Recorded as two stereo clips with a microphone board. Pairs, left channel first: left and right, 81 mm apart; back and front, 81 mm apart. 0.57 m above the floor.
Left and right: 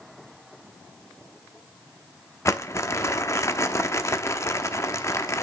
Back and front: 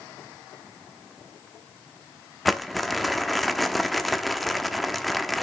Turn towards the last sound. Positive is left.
turn(degrees=90)